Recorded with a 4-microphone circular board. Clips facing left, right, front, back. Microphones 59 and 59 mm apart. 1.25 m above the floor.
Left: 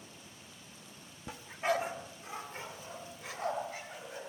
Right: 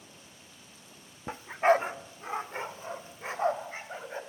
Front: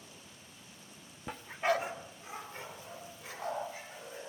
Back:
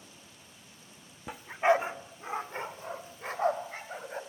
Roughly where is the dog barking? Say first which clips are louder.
Right 9 dB, back 6 dB; right.